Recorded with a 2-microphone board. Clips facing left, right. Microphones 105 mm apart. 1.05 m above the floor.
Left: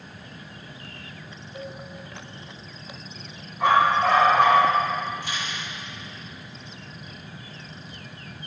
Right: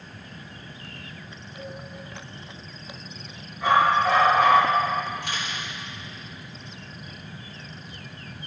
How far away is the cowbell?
About 3.5 m.